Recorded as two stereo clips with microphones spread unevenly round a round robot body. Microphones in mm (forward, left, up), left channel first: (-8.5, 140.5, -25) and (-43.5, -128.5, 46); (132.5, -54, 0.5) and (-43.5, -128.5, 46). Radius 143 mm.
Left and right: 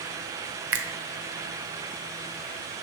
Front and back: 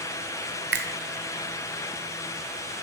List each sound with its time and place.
0.7 s a finger snap: 135° right, 1.0 m